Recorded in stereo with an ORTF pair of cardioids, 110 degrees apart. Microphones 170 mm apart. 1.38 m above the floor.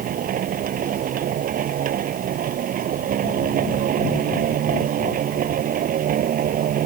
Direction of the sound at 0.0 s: 55° right.